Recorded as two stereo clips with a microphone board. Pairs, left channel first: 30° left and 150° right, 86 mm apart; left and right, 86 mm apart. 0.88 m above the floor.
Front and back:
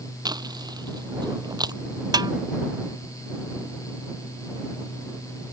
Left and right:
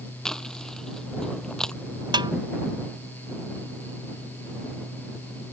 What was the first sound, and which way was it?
Chewing, 175° left.